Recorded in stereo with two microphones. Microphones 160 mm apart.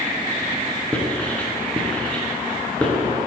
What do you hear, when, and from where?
0.9 s writing: 10° left (ahead or behind), 1.4 m